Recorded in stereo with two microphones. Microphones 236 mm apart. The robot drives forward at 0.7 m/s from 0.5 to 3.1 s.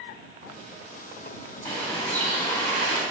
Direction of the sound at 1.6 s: 10° left (ahead or behind).